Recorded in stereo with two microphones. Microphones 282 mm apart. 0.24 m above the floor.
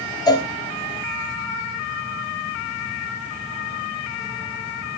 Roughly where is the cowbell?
Centre.